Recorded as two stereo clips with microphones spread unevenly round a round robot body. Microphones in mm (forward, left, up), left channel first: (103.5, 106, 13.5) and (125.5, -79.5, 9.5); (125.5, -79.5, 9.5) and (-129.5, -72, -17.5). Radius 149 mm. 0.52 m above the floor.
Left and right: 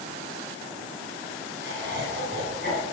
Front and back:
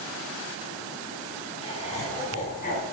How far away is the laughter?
About 6 m.